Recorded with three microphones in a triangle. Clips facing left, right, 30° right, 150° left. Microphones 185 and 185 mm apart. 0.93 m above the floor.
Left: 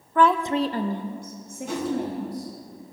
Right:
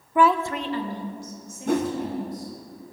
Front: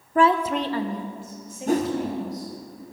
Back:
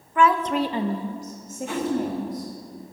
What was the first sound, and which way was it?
A woman speaking, 20° right.